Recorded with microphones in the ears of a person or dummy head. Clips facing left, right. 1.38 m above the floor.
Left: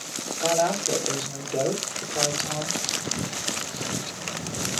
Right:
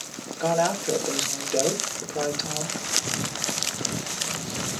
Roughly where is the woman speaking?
Centre.